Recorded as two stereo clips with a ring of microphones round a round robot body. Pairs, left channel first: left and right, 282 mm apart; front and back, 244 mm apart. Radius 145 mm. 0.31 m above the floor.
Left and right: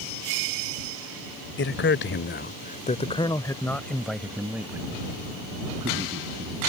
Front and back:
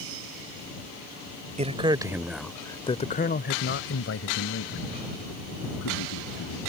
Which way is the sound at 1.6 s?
125° left.